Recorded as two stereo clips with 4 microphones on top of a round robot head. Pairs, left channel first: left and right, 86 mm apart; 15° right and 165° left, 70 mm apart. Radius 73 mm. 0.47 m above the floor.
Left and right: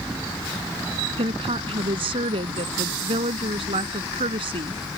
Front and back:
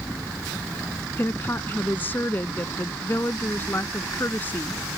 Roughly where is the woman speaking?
Right.